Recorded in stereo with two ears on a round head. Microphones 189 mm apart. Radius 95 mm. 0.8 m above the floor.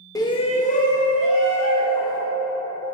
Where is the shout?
15° left (ahead or behind), 0.6 m; by 2.2 s 25° left (ahead or behind), 1.4 m.